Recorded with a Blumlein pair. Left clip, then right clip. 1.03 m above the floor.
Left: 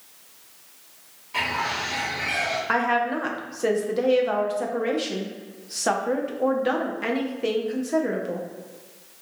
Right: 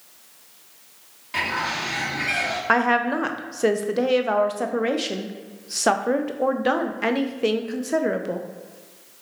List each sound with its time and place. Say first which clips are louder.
1.3 s a bird: right 1 dB; 55° right, 1.8 m
2.7 s a woman speaking: right 4 dB; 15° right, 0.5 m